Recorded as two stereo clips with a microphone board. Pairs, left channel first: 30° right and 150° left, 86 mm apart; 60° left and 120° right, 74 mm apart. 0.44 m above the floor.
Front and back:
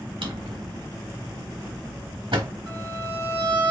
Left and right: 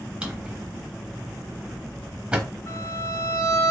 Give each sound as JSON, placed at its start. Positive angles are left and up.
{"t": 0.2, "sound": "a drawer", "azimuth_deg": 160, "distance_m": 0.8}
{"t": 2.7, "sound": "a violin", "azimuth_deg": 105, "distance_m": 1.8}